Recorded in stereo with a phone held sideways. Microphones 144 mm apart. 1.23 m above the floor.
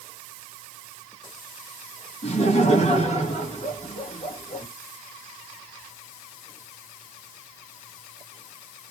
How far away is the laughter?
About 1.6 m.